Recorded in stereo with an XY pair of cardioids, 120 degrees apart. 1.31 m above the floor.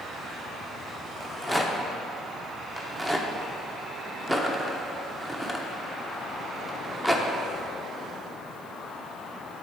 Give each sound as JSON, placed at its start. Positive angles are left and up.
{"t": 1.2, "sound": "a rattle", "azimuth_deg": 5, "distance_m": 0.8}